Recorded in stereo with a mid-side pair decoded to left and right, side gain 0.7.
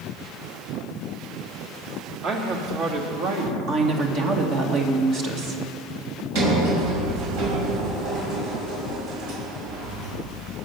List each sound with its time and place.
2.2 s a man speaking: 50° right, 2.5 m; by 3.6 s 70° right, 2 m
3.7 s a woman speaking: 55° right, 1.9 m
6.3 s a sliding door: 70° right, 5 m